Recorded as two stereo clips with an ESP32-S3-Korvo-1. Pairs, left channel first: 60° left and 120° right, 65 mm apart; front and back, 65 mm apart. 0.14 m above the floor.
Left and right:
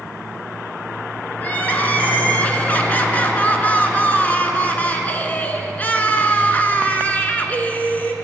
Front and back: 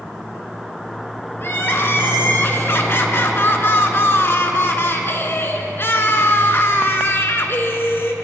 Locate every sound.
1.4 s crying: 15° left, 0.8 m